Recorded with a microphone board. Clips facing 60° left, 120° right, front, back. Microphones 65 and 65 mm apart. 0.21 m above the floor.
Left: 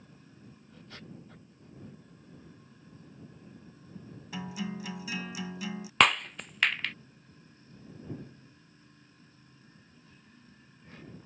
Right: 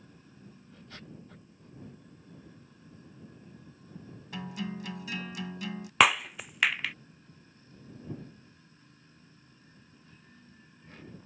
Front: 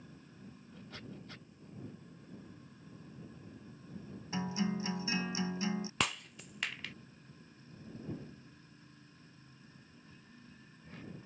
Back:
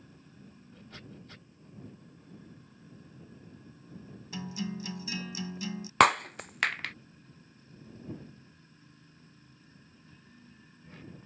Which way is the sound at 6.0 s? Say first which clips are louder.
Right 1 dB, back 15 dB; 155° left.